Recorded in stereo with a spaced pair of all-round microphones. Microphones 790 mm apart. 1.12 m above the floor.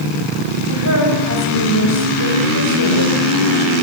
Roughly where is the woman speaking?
Centre.